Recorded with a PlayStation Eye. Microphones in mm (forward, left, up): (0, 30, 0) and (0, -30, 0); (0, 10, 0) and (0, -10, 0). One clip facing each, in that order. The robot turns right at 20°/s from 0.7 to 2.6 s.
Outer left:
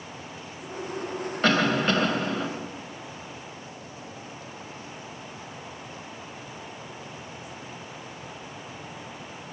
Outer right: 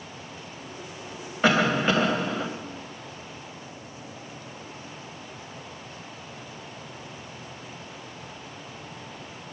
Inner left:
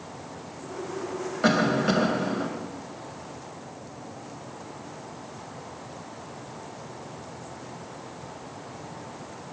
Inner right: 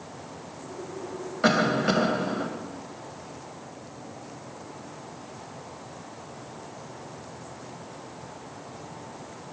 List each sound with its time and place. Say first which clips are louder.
1.4 s a cough: outer right 1 dB, even; 10° right (ahead or behind), 0.9 m; by 2.5 s 5° right (ahead or behind), 0.9 m